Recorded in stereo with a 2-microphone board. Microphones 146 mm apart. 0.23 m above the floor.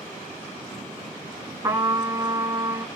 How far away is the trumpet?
About 2 m.